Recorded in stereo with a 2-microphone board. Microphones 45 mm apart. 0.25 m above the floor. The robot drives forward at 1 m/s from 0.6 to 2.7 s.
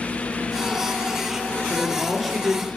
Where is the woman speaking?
Centre (ahead or behind), 3.5 m.